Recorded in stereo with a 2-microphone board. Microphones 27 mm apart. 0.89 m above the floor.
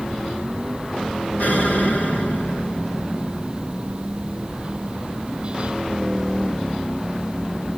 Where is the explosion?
70° left (ahead or behind), 5.5 m.